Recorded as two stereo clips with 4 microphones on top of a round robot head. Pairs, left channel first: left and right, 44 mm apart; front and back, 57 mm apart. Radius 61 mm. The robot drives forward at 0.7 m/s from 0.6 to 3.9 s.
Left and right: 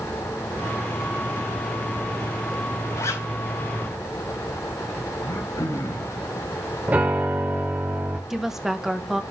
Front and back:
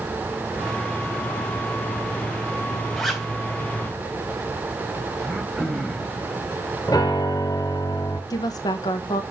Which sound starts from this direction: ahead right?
A piano, at 6.9 s.